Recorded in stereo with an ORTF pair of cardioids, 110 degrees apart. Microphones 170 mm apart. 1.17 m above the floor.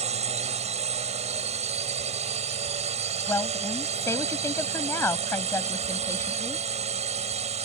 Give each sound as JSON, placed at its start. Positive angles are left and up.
{"t": 0.0, "sound": "a drone", "azimuth_deg": -40}
{"t": 3.3, "sound": "a woman speaking", "azimuth_deg": 15}